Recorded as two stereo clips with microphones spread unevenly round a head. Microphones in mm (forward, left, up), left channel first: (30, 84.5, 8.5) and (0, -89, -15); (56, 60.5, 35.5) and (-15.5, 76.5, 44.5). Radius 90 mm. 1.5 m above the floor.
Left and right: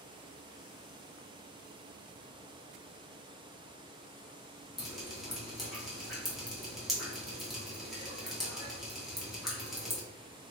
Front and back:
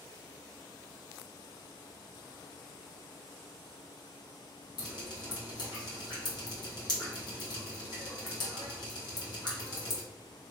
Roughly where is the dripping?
Ahead.